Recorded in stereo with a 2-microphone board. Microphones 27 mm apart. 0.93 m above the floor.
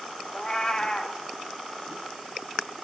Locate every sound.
0.3 s a cat meowing: 25° left (ahead or behind), 0.7 m